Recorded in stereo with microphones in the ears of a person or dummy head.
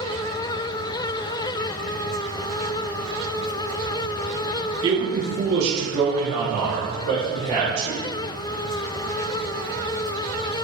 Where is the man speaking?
20° right (ahead or behind), 0.6 m; by 8.0 s 80° right, 1.8 m.